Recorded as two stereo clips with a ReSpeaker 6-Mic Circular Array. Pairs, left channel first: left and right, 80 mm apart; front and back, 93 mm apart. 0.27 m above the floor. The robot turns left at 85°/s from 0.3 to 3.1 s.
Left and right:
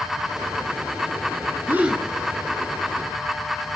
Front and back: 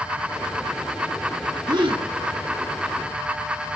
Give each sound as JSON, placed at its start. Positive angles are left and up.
{"t": 1.7, "sound": "a gasp", "azimuth_deg": -150, "distance_m": 0.7}